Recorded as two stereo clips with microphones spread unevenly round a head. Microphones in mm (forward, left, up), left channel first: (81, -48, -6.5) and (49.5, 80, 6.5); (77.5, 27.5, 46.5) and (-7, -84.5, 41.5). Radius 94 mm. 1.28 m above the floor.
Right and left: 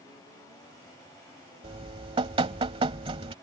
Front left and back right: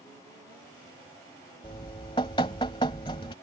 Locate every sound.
1.6 s dripping: 110° left